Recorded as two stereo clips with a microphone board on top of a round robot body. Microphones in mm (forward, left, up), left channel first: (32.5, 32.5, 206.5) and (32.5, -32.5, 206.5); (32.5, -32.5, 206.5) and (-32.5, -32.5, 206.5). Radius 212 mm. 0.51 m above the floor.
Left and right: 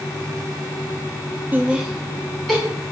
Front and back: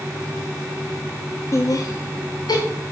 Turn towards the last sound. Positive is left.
turn(degrees=10)